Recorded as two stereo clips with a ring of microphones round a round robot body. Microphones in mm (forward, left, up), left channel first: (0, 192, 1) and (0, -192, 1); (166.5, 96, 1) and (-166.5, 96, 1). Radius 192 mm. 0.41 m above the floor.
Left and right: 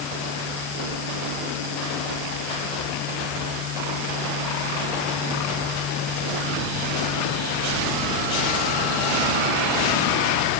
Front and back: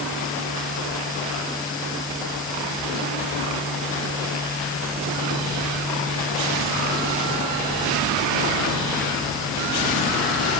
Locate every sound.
Only background noise.